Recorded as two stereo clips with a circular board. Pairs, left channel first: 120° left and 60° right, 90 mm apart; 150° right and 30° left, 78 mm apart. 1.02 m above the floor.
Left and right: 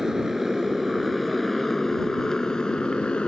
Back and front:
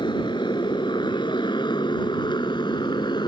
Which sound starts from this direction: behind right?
A motorcycle, at 0.0 s.